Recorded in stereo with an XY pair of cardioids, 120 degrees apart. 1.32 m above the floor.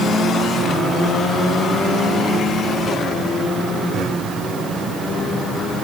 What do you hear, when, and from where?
Only background noise.